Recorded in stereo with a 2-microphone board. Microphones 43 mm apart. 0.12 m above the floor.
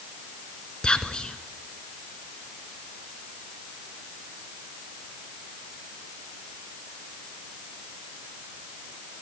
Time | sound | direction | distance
0.8 | whispering | 20° left (ahead or behind) | 1.2 m